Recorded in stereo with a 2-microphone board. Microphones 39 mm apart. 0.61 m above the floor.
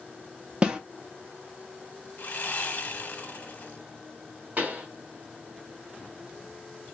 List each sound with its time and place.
0.6 s a snare drum: 25° right (ahead or behind), 0.7 m
2.2 s sawing: 45° left (ahead or behind), 0.8 m
4.6 s a pop: 40° right (ahead or behind), 1.3 m